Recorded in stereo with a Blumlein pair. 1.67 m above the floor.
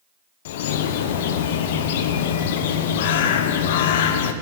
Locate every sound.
0.5 s a bird: 55° left, 0.9 m